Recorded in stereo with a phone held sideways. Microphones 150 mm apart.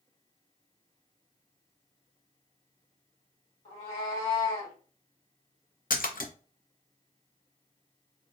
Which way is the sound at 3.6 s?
40° left (ahead or behind).